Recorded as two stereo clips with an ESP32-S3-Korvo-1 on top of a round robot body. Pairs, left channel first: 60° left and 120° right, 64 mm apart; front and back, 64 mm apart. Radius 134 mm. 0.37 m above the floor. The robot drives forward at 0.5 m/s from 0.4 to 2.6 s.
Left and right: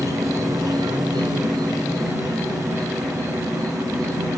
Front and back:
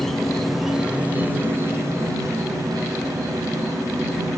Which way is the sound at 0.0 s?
85° right.